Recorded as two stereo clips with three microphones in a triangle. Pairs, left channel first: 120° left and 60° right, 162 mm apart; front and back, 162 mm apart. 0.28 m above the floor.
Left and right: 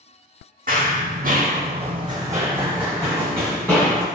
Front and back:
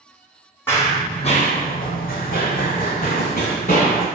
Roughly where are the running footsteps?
Right.